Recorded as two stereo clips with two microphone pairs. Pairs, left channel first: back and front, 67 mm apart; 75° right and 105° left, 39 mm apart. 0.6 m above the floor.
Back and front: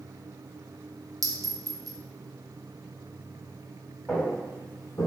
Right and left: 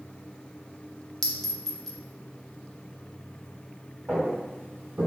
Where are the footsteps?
95° left, 1.6 m; by 5.1 s 135° left, 1.1 m.